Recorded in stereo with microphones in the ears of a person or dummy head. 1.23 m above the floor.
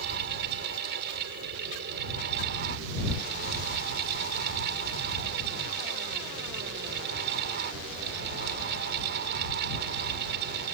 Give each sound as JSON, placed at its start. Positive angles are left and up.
{"t": 0.0, "sound": "a fan", "side_deg": -60}